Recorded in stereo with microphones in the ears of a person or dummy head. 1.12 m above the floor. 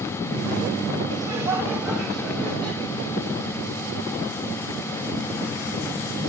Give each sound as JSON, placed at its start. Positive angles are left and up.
{"t": 1.1, "sound": "laughter", "side_deg": -20, "distance_m": 2.5}